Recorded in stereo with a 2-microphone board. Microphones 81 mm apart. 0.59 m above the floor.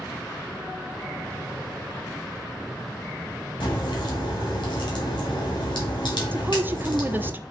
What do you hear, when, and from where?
3.6 s a crack: 75° left (ahead or behind), 2.5 m
6.3 s a woman speaking: 25° right (ahead or behind), 0.6 m